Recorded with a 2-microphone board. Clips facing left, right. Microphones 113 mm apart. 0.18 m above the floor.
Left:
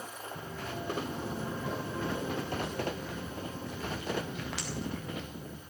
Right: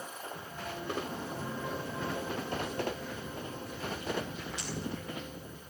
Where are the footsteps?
65° left (ahead or behind), 4.5 m; by 5.6 s 85° left, 5.5 m.